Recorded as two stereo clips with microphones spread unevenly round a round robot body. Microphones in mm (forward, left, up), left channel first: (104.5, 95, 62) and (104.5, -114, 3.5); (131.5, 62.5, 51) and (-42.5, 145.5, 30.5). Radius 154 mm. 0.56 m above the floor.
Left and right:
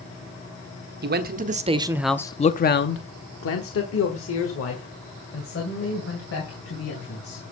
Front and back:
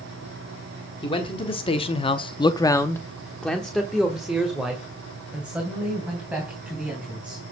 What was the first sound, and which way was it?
A man speaking, 95° right.